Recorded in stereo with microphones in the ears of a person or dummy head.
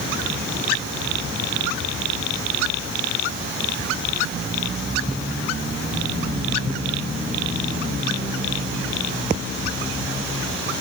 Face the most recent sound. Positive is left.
No sound to turn to.